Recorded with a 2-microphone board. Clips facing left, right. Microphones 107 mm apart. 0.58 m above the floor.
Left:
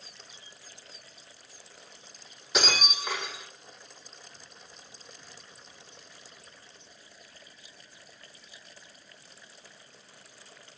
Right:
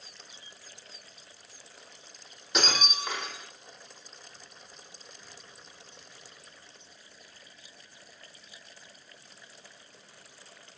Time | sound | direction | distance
2.5 | breaking glass | centre (ahead or behind) | 8 m